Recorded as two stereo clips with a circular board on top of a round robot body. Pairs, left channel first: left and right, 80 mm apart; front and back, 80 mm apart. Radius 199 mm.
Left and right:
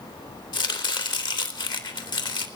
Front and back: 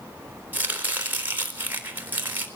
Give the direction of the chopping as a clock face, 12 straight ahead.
8 o'clock.